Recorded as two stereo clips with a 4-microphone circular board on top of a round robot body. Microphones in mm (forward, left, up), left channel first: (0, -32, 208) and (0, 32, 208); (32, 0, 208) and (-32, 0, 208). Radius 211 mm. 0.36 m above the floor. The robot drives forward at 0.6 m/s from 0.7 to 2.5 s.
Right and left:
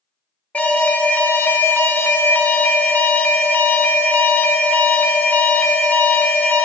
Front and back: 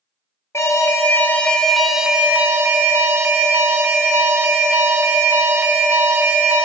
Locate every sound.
0.5 s an alarm: 30° right, 1.1 m; by 6.7 s 140° right, 0.9 m